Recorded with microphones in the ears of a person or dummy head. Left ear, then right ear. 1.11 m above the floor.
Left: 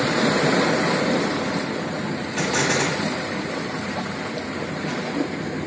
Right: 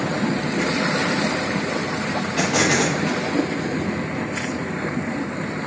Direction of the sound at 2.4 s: 15° left (ahead or behind).